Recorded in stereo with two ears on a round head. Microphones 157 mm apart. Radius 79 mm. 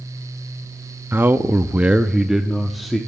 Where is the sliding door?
No sliding door in this recording.